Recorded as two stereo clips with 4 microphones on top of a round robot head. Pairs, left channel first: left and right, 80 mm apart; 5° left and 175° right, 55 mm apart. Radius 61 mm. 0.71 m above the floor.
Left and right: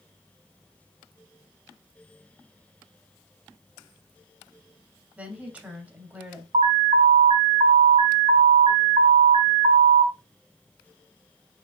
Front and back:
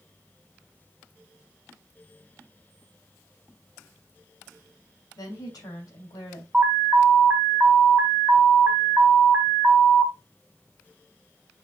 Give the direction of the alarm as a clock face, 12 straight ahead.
3 o'clock.